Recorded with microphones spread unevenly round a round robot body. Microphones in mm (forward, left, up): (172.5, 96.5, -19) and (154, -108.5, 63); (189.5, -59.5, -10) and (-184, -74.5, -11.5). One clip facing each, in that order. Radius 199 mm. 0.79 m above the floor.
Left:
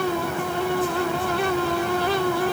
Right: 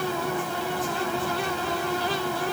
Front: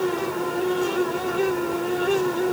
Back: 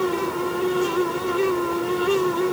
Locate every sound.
Only background noise.